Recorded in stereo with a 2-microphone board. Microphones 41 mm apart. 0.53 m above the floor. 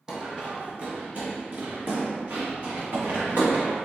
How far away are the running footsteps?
About 0.9 m.